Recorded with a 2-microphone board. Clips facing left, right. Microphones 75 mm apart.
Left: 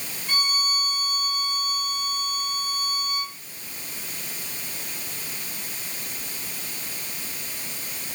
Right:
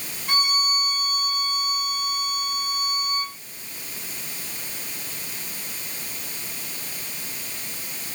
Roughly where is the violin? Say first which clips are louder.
Right 3 dB; right.